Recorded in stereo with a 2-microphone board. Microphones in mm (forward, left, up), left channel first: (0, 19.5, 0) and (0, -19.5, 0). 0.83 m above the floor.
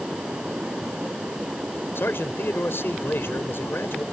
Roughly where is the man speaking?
Left.